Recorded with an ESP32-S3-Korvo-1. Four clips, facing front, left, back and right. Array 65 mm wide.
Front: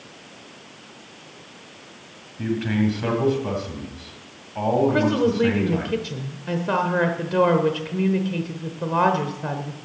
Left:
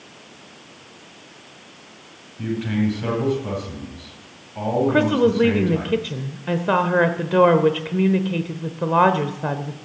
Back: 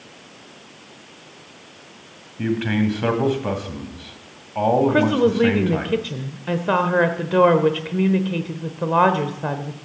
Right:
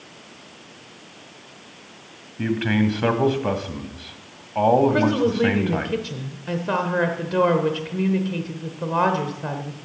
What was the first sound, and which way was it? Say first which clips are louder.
A man speaking: right 2 dB, back 2 dB; 115° right.